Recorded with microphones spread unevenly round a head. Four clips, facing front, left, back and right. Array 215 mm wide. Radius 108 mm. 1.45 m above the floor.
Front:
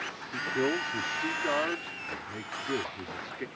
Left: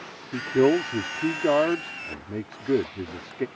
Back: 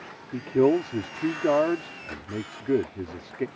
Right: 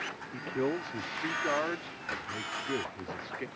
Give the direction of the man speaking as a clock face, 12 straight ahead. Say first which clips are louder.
Left 12 dB, back 9 dB; 8 o'clock.